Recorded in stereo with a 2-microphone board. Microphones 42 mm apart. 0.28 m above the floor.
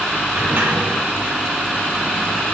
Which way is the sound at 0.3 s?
55° right (ahead or behind).